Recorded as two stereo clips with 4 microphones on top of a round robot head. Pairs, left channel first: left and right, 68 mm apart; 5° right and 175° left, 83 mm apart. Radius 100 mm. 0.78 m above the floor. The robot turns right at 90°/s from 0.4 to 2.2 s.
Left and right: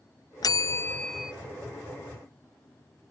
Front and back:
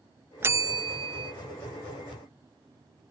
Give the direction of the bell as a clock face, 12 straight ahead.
8 o'clock.